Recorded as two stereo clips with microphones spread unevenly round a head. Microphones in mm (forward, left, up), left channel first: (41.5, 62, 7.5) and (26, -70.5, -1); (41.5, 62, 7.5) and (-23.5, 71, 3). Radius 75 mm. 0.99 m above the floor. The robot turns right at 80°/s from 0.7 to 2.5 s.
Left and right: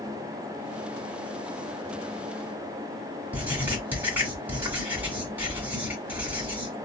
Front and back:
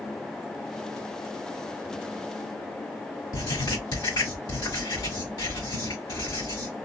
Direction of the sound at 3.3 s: 20° right.